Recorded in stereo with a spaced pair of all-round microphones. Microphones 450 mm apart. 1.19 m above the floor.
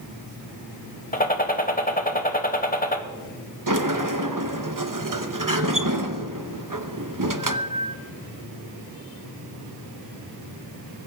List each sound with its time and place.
1.1 s a gunshot: 20° left (ahead or behind), 1.0 m
3.7 s a sliding door: 45° right (ahead or behind), 0.8 m